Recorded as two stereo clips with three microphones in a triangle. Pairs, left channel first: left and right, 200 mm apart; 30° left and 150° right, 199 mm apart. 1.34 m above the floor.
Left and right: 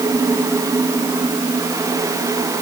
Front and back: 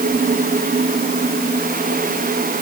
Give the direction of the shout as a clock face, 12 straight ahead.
No shout in this recording.